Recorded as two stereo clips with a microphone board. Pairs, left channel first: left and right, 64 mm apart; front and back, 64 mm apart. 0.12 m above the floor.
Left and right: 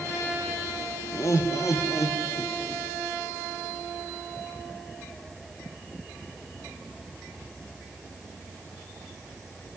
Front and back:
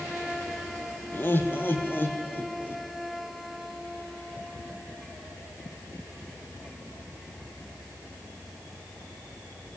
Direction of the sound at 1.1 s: 55° left.